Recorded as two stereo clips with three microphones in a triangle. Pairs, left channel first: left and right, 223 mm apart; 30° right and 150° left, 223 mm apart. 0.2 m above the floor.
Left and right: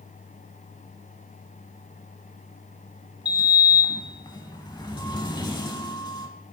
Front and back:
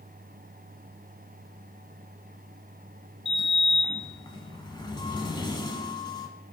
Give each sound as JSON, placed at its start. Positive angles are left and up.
{"t": 3.2, "sound": "a sliding door", "azimuth_deg": 30, "distance_m": 0.7}